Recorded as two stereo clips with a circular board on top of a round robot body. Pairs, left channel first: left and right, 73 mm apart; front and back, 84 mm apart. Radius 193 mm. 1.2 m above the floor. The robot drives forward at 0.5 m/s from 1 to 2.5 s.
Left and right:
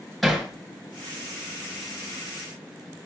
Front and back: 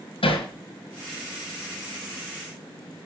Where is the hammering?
Straight ahead, 6 m.